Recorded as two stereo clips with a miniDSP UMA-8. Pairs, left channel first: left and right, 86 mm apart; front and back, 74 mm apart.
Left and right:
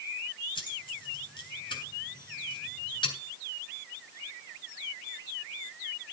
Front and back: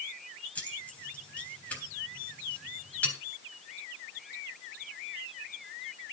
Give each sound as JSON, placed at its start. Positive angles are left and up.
{"t": 0.6, "sound": "keys jangling", "azimuth_deg": 70, "distance_m": 3.5}